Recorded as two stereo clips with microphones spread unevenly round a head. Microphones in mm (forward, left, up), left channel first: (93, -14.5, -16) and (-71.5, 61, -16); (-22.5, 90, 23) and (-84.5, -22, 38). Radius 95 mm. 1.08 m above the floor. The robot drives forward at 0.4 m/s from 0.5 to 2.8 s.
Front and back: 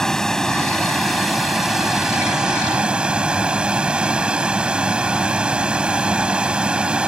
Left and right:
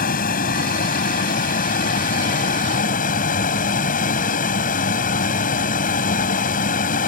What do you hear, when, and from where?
0.0 s a vehicle: 60° left; by 7.1 s 70° left